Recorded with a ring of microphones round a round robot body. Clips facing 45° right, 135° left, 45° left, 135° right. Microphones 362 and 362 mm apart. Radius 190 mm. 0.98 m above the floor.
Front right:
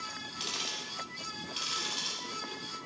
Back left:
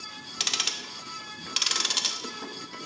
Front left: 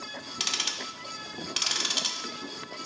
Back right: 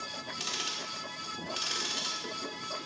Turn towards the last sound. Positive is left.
turn(degrees=115)